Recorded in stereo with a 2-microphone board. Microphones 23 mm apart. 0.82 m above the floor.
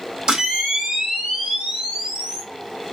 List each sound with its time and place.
0.3 s a camera shutter: 40° right (ahead or behind), 1.0 m